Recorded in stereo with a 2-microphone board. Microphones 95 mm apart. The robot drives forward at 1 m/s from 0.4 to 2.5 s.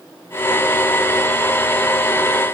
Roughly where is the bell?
No bell in this recording.